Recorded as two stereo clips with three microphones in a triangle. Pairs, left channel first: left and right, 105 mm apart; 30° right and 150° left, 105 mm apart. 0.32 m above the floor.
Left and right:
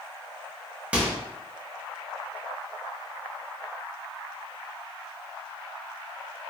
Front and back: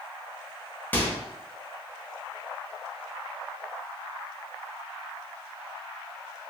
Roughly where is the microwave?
Ahead right.